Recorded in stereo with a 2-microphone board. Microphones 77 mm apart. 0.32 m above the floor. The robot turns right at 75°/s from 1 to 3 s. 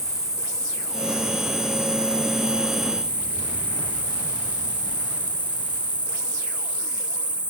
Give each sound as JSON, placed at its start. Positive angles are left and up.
{"t": 0.0, "sound": "an insect", "azimuth_deg": 50, "distance_m": 1.2}